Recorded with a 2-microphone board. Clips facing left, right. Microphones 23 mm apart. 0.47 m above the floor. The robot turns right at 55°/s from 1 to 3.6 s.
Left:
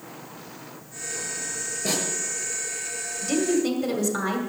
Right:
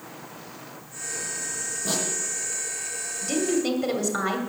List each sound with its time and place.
1.9 s a snare drum: 50° left (ahead or behind), 7.5 m; by 2.0 s 40° left (ahead or behind), 7.5 m
3.2 s a woman speaking: 10° left (ahead or behind), 1.9 m; by 4.4 s 10° right (ahead or behind), 1.9 m